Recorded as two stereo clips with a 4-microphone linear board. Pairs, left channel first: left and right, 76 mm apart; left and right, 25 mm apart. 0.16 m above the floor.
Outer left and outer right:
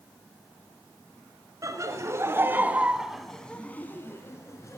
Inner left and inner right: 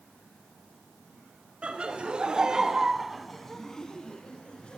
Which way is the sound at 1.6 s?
40° right (ahead or behind).